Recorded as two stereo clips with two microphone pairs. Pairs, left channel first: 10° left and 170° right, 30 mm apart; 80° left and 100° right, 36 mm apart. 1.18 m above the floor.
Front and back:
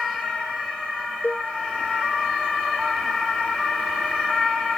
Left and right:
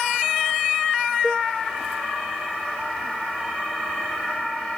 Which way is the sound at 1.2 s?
10° right.